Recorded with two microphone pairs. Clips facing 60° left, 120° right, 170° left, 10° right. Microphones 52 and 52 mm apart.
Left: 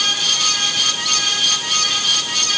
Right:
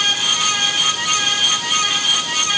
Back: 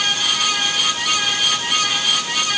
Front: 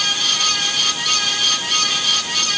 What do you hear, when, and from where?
Only background noise.